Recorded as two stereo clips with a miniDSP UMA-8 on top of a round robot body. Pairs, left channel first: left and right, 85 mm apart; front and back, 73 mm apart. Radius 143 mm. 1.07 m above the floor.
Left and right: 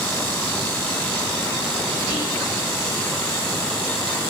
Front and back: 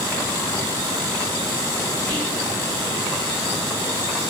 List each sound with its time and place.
2.1 s whispering: 55° left, 1.1 m